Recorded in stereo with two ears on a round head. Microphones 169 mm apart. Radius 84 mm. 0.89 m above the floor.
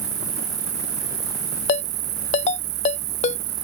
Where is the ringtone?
40° left (ahead or behind).